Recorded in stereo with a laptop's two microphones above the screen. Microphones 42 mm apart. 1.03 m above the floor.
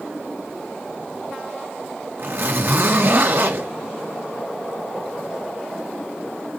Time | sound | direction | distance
2.2 | a zipper | 50° right (ahead or behind) | 2.5 m